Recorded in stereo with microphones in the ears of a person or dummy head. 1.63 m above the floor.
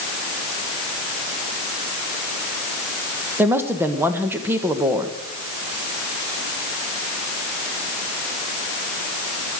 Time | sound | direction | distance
3.4 | a woman speaking | 15° right (ahead or behind) | 1.5 m